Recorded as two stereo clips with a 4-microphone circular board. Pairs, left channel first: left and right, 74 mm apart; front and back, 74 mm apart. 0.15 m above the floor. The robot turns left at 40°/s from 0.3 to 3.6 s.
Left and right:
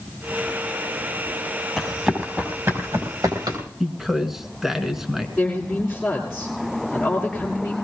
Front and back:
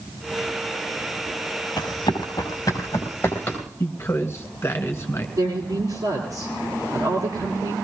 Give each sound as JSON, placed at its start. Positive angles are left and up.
{"t": 1.8, "sound": "running footsteps", "azimuth_deg": 0, "distance_m": 5.5}
{"t": 3.8, "sound": "a man speaking", "azimuth_deg": -5, "distance_m": 1.4}
{"t": 5.4, "sound": "a woman speaking", "azimuth_deg": 180, "distance_m": 3.5}